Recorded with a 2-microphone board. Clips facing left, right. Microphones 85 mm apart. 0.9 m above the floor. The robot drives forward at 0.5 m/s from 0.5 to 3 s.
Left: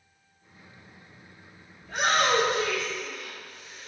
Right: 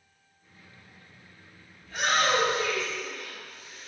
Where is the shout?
70° left (ahead or behind), 1.5 m; by 3.9 s 50° left (ahead or behind), 1.8 m.